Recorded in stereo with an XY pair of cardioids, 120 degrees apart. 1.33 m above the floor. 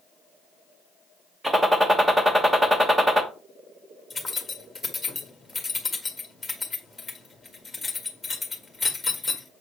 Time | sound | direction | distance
1.4 | a gunshot | 15° right | 1.1 m
4.1 | keys jangling | 10° left | 1.7 m